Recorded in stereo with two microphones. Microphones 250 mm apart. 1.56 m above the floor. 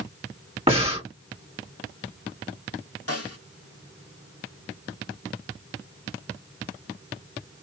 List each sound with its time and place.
0.7 s breathing: 25° right (ahead or behind), 2.5 m
3.1 s a snare drum: 70° left (ahead or behind), 2 m